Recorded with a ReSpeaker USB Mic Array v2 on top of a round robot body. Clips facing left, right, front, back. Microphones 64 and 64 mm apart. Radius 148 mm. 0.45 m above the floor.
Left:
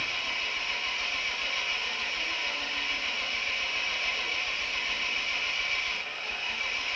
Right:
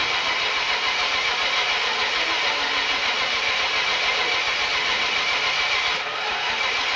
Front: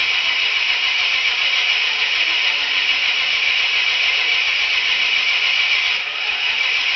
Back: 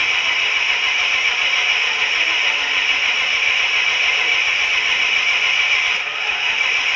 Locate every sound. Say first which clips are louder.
0.0 s an engine running: right 10 dB, back 1 dB; 105° right, 0.8 m